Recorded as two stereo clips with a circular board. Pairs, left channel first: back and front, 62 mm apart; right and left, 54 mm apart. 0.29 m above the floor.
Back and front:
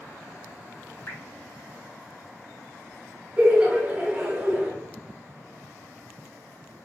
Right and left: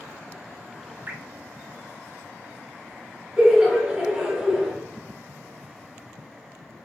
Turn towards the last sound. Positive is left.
turn(degrees=30)